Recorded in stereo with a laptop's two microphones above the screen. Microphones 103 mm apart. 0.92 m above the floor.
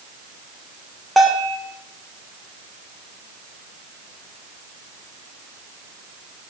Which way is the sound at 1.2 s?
Centre (ahead or behind).